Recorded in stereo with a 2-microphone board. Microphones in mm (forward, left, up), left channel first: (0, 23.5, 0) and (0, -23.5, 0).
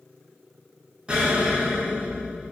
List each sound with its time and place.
1.1 s an explosion: 25° right (ahead or behind), 0.9 m